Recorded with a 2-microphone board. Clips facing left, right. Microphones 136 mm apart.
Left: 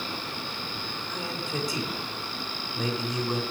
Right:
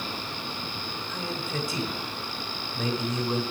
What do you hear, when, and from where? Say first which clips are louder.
1.1 s a man speaking: even; 15° left (ahead or behind), 1.9 m